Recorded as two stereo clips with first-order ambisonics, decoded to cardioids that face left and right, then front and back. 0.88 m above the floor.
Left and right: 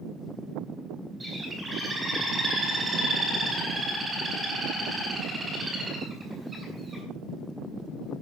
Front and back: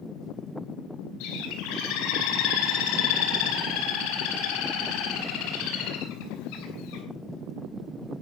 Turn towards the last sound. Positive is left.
turn(degrees=-15)